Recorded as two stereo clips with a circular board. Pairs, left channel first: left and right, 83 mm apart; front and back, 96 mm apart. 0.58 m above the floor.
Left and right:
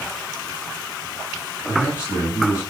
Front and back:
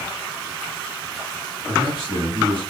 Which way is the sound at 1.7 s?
155° left.